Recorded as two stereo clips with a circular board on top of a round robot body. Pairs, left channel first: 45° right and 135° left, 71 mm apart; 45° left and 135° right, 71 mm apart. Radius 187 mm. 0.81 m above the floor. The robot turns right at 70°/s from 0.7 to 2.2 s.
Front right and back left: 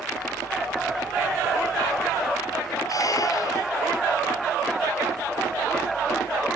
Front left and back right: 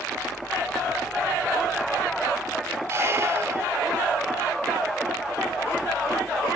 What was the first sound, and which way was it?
A squeak, 80° right.